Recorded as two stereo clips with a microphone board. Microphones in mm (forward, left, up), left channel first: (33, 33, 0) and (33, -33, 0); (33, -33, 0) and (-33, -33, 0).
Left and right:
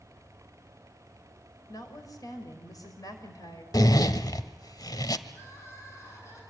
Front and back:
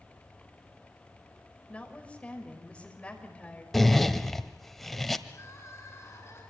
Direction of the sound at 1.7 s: 70° left.